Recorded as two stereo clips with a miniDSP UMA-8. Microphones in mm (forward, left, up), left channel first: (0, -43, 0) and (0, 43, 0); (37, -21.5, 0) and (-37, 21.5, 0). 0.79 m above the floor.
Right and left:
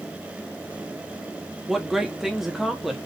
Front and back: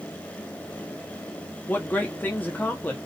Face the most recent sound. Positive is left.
turn(degrees=5)